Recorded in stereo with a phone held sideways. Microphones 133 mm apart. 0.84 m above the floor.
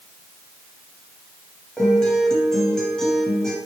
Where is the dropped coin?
No dropped coin in this recording.